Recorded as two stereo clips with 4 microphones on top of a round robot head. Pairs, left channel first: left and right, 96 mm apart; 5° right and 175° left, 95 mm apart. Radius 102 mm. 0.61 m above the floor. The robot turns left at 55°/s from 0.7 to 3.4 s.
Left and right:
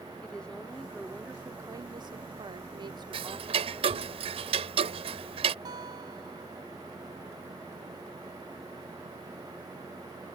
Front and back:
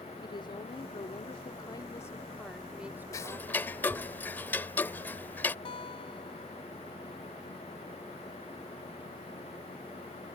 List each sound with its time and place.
0.2 s a woman speaking: 10° left; by 4.1 s 140° right
3.1 s ticking: 65° right; by 5.5 s 80° right
5.7 s a guitar: 40° right